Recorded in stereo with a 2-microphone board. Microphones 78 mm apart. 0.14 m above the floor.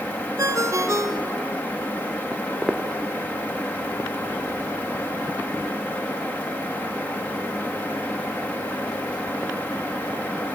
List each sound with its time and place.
0.4 s a ringtone: 45° right (ahead or behind), 1.3 m
2.3 s footsteps: 20° right (ahead or behind), 0.8 m; by 9.6 s 60° left (ahead or behind), 4 m